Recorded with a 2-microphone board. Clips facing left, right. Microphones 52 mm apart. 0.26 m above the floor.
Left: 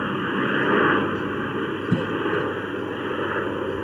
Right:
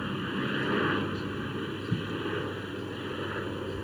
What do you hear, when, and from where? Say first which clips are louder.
0.0 s a helicopter: left 9 dB; 35° left (ahead or behind)
1.9 s a cough: left 10 dB; 80° left